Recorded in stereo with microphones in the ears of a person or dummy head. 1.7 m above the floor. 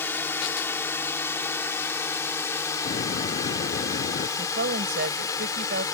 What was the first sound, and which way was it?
A drone, 15° left (ahead or behind).